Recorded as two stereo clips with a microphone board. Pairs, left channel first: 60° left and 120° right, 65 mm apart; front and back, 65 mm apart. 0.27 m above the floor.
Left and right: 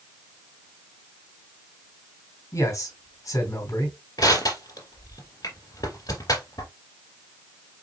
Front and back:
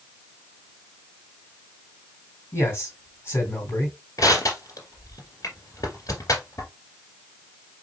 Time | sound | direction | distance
2.5 | a man speaking | 45° left | 2.5 m
4.2 | crushing | 35° left | 2.5 m